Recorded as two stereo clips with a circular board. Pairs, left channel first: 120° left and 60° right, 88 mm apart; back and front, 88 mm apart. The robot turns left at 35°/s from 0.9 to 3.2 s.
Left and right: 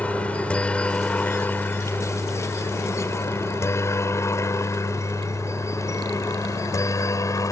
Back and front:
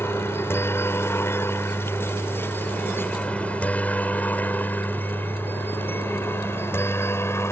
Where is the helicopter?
175° left; by 7.5 s 140° left.